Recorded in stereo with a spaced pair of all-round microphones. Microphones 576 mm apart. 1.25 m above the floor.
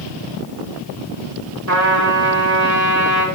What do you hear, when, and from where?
1.7 s a trumpet: 30° right (ahead or behind), 1.3 m